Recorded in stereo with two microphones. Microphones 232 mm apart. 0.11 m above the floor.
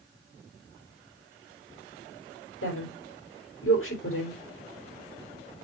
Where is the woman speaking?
65° left (ahead or behind), 4 m.